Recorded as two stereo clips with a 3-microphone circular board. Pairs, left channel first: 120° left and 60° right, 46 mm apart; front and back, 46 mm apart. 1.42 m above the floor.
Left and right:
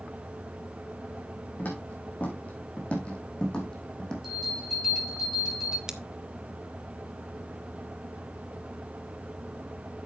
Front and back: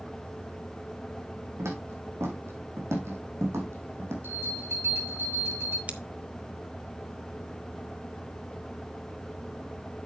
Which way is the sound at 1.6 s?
170° left.